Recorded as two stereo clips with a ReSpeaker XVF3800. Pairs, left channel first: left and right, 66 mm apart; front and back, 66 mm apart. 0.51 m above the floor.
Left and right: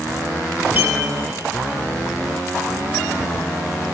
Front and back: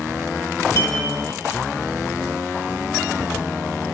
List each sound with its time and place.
0.8 s a clink: 35° right, 1.2 m